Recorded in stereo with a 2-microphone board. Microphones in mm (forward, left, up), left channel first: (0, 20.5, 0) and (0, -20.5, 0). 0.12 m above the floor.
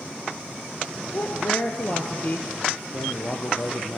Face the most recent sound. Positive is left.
turn(degrees=55)  # may be behind; listen again after turning